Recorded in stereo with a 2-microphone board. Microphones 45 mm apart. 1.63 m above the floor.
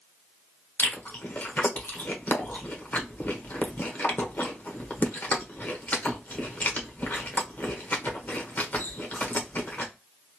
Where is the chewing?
40° left (ahead or behind), 1.0 m.